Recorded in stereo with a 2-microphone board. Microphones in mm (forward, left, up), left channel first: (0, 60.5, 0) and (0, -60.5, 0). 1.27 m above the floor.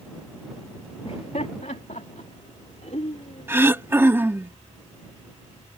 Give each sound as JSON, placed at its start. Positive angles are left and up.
{"t": 1.1, "sound": "laughter", "side_deg": 60}
{"t": 3.5, "sound": "throat clearing", "side_deg": -20}